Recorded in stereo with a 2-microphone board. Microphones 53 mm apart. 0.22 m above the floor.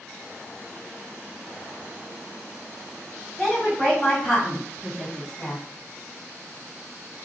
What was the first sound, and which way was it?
A woman speaking, centre (ahead or behind).